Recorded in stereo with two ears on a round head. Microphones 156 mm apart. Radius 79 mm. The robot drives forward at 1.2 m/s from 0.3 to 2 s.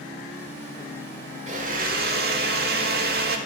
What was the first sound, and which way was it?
A blender, 40° right (ahead or behind).